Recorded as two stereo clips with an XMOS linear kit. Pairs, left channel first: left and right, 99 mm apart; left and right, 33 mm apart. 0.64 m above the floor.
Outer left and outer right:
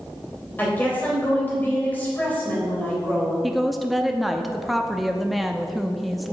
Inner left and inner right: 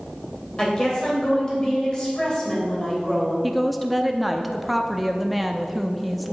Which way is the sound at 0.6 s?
20° left (ahead or behind).